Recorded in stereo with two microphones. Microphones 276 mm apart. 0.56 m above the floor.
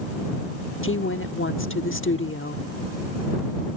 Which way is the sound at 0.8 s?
50° left (ahead or behind).